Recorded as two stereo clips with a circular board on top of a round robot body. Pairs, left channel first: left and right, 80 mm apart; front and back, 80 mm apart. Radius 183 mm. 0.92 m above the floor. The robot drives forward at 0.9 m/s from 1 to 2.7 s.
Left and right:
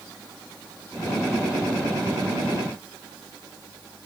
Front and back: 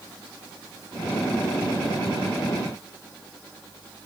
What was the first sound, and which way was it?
Only background noise.